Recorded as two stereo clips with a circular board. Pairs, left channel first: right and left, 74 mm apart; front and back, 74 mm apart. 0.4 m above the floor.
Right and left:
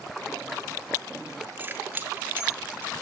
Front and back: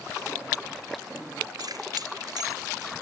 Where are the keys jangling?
155° left, 4.5 m.